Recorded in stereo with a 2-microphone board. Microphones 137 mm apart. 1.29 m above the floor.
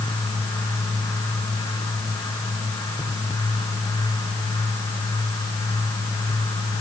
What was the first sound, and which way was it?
Only background noise.